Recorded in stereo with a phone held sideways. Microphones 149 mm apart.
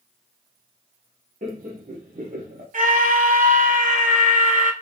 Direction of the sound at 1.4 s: 65° right (ahead or behind).